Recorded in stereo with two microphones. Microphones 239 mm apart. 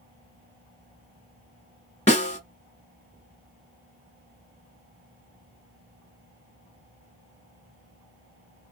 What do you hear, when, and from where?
2.1 s a snare drum: 25° left (ahead or behind), 0.9 m